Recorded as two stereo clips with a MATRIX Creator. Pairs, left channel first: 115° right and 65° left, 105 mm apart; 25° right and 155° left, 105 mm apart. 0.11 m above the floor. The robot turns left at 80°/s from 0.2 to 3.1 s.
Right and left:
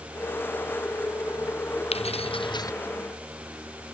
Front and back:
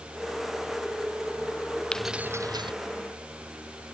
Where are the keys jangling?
105° right; by 2.7 s 170° right.